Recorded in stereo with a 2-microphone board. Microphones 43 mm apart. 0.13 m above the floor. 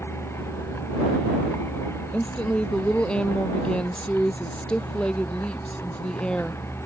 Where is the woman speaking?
25° left (ahead or behind).